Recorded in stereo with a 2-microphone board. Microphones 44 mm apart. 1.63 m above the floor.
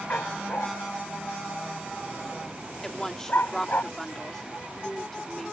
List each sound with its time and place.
0.1 s a dog barking: 50° left (ahead or behind)
2.8 s a woman speaking: 10° left (ahead or behind)